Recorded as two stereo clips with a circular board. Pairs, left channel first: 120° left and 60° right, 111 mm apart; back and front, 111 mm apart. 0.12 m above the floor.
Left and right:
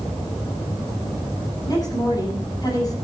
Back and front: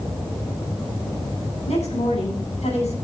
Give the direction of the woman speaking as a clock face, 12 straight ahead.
6 o'clock.